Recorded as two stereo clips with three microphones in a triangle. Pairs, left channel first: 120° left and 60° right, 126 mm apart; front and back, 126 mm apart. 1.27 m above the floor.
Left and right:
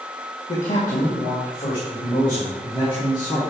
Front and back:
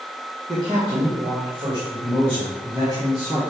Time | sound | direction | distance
0.5 | a man speaking | 120° left | 1.6 m